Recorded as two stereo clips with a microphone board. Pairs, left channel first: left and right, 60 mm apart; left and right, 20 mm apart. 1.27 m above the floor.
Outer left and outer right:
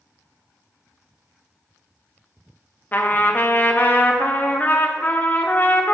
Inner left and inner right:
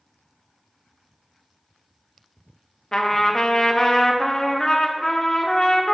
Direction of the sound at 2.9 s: 35° left (ahead or behind).